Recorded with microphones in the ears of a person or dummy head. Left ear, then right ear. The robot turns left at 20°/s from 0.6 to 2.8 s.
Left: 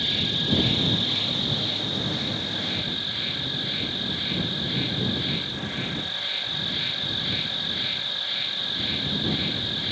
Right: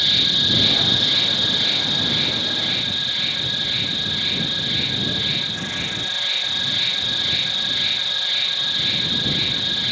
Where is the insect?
45° right; by 9.9 s 90° right.